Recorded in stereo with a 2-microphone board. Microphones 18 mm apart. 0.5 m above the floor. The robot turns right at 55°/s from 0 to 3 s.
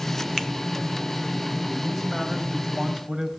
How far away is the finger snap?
About 1.4 m.